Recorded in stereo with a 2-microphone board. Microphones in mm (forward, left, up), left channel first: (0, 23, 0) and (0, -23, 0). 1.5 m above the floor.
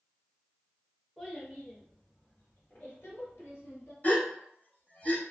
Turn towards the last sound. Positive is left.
turn(degrees=40)  # may be behind; listen again after turning